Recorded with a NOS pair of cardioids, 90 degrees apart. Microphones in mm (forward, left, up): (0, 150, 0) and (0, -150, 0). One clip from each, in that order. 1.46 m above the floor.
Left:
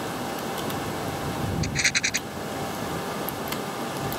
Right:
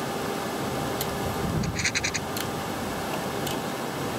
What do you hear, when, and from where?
1.6 s a rattle: 45° left